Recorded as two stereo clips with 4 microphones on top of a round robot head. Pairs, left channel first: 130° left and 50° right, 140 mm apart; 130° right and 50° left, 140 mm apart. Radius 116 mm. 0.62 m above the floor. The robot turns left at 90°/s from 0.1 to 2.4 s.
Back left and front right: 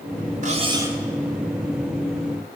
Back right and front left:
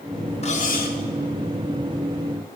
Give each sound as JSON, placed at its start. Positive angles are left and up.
{"t": 0.4, "sound": "cutlery clinking", "azimuth_deg": -85, "distance_m": 1.3}